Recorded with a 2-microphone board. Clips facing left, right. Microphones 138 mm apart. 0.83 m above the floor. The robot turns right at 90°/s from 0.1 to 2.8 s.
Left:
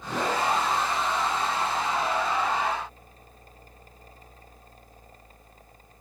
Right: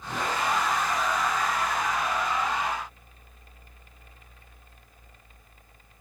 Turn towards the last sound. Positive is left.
No sound to turn to.